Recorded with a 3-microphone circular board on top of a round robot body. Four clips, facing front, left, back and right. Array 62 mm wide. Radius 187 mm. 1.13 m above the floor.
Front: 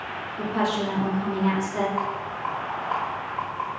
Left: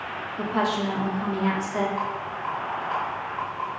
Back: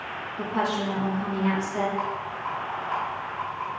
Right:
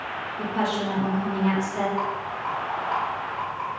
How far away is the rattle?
About 1.2 m.